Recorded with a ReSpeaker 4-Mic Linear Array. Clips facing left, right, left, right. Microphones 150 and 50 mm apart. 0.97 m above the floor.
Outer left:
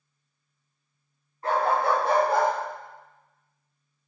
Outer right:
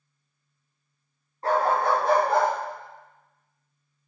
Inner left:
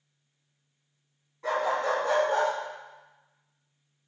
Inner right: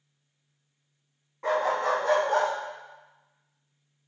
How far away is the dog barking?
About 3 m.